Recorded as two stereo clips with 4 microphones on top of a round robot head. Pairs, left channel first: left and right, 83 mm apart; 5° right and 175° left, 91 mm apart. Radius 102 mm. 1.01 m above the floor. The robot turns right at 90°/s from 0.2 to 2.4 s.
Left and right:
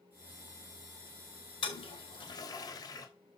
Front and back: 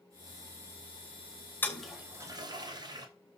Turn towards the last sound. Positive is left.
turn(degrees=130)